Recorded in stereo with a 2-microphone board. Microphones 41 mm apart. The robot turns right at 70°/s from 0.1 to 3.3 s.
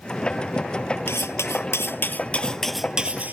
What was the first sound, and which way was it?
Cutlery clinking, 65° left.